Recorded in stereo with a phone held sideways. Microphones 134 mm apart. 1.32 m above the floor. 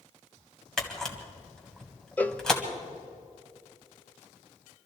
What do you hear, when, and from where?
0.8 s a camera shutter: 5° left (ahead or behind), 1.8 m
2.2 s a cowbell: 10° left (ahead or behind), 0.6 m